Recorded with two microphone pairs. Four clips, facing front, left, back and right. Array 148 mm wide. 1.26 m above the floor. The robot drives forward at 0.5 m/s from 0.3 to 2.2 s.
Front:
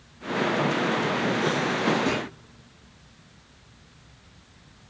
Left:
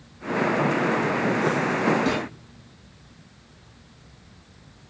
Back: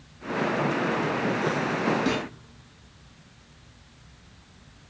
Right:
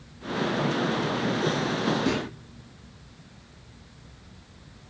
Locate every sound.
2.0 s a clunk: 135° left, 8 m